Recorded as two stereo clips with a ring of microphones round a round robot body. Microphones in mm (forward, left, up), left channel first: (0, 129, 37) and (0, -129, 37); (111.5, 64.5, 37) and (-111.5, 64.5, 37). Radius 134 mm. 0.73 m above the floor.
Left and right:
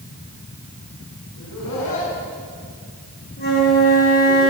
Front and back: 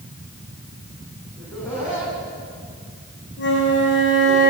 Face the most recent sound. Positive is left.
turn(degrees=35)